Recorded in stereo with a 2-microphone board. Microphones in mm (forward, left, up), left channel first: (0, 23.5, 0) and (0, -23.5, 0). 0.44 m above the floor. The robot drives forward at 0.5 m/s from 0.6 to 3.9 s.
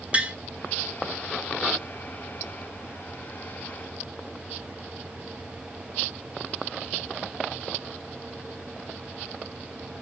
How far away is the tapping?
About 1.5 m.